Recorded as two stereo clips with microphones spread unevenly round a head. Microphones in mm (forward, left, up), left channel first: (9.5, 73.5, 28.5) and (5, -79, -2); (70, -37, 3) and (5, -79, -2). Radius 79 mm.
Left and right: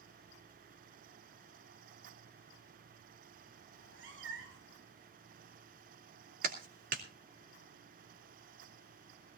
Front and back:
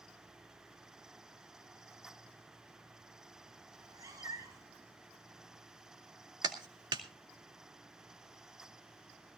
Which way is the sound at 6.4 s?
120° right.